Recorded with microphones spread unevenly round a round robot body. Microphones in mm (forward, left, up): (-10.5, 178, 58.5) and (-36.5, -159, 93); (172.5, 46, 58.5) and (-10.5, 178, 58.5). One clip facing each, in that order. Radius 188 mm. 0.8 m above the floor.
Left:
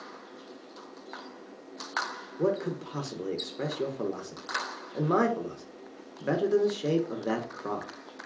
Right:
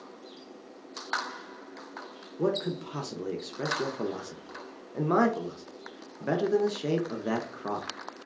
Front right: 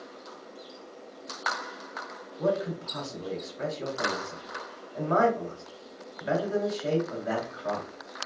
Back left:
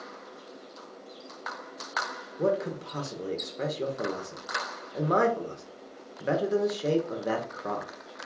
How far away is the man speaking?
About 0.6 m.